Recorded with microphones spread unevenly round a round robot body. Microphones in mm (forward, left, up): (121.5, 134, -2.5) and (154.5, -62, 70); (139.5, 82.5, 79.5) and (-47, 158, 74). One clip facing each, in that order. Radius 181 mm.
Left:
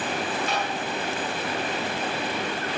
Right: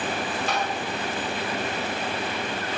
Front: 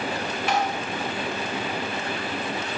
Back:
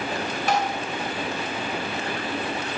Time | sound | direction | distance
0.5 | tapping | 150° right | 2.5 m